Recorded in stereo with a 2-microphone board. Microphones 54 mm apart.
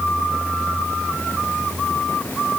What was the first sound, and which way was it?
Only background noise.